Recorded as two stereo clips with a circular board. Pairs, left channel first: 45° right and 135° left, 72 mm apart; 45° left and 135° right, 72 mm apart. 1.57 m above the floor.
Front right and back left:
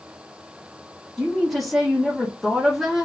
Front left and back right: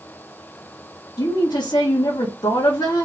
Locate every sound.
1.2 s a woman speaking: 45° left, 1.3 m